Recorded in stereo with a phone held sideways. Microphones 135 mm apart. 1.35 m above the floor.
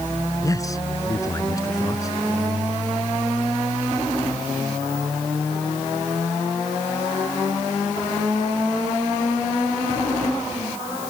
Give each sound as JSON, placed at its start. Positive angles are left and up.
{"t": 0.4, "sound": "a man speaking", "side_deg": 25}